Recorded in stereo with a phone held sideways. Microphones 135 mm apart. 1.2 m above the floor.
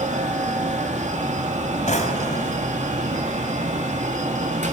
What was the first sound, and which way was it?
A fan, 60° right (ahead or behind).